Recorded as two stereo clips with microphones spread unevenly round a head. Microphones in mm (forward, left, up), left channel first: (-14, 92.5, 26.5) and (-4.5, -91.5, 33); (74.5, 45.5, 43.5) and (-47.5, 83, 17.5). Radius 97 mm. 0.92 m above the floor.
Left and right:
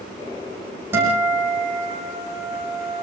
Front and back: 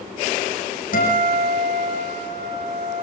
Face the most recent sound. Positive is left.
turn(degrees=-10)